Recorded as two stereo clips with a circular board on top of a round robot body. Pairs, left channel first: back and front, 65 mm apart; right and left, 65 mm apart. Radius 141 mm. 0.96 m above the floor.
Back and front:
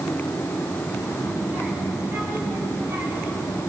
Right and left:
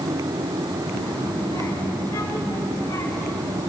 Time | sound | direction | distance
0.9 | a child speaking | 65° right | 5.5 m